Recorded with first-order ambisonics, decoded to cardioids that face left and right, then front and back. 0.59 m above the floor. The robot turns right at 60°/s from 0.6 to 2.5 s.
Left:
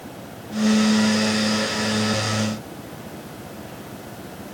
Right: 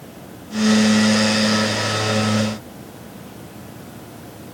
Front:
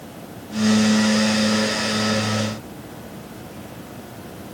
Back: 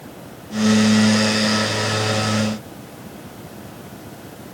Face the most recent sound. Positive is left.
No sound to turn to.